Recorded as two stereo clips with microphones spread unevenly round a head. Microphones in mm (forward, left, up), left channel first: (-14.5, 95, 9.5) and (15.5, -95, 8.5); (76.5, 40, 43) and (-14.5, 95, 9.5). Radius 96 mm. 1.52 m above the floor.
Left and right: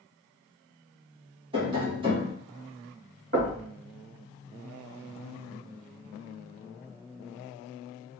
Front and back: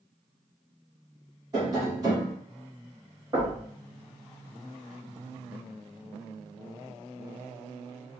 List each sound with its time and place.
1.5 s tapping: 145° right, 1.8 m
3.3 s knocking: 130° right, 2.5 m